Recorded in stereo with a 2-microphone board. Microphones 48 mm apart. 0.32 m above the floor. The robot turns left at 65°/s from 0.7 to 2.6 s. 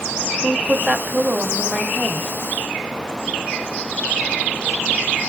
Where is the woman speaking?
60° right, 1.0 m; by 2.3 s 160° right, 1.0 m.